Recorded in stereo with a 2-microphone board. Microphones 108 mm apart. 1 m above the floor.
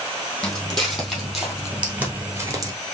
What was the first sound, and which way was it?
Footsteps, 5° left (ahead or behind).